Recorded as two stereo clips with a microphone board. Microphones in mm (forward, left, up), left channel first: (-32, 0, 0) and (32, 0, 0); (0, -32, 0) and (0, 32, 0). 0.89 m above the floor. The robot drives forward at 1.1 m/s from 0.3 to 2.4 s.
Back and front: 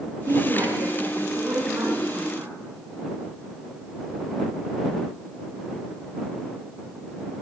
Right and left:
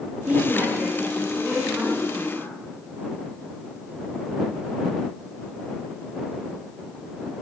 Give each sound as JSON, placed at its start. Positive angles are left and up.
{"t": 0.2, "sound": "a woman speaking", "azimuth_deg": 20, "distance_m": 9.0}